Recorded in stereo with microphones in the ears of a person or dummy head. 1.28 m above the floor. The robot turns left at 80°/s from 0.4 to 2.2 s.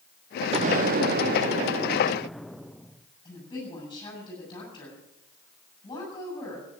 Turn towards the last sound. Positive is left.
turn(degrees=20)  # may be behind; listen again after turning